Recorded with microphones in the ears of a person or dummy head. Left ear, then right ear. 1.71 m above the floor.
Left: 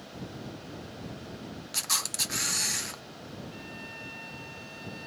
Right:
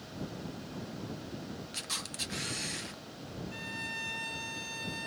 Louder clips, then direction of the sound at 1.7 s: Left 8 dB; 35° left (ahead or behind).